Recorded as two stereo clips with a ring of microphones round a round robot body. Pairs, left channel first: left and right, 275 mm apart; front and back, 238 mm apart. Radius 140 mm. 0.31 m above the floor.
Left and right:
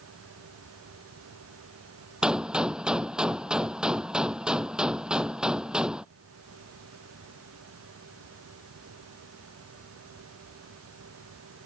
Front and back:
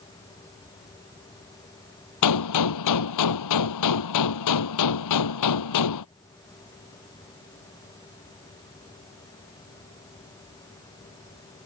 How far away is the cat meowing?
No cat meowing in this recording.